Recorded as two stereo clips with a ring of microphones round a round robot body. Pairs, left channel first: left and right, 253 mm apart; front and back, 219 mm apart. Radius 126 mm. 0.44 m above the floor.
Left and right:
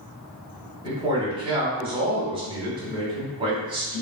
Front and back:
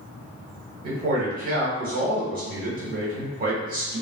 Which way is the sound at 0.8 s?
150° right.